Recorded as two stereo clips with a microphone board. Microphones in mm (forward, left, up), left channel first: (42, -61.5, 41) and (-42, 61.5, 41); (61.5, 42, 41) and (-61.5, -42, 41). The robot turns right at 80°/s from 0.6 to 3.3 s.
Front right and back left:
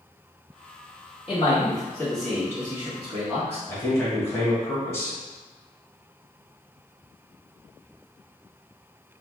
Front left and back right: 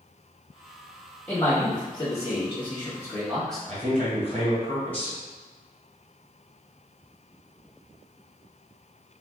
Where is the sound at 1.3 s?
45° right, 1.2 m; by 3.6 s 120° left, 1.2 m.